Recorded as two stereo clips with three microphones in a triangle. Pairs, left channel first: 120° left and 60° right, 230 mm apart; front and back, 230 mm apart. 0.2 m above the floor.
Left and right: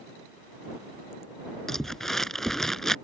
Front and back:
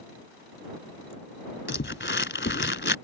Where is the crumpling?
30° left.